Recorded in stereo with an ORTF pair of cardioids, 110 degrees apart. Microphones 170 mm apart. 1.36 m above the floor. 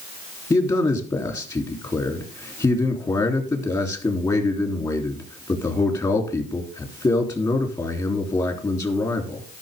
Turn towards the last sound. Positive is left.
turn(degrees=25)